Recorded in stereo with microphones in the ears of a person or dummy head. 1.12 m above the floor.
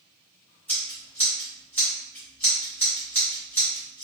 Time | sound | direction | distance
0.7 | scissors | 5° left (ahead or behind) | 1.6 m